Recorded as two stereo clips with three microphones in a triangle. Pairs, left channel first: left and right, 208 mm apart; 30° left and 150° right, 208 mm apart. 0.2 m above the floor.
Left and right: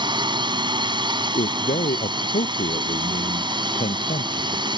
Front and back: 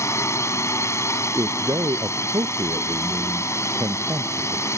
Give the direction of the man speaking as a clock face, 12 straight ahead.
7 o'clock.